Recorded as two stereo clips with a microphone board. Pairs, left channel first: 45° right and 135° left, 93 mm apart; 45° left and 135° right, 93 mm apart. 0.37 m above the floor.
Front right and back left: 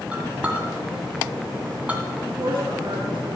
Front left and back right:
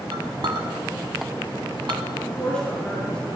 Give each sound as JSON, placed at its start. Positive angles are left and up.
{"t": 0.1, "sound": "a clink", "azimuth_deg": -155, "distance_m": 2.0}
{"t": 2.1, "sound": "a woman speaking", "azimuth_deg": 125, "distance_m": 5.0}